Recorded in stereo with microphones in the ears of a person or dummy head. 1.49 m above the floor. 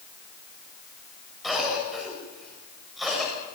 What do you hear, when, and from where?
1.4 s a cough: 5° right (ahead or behind), 8 m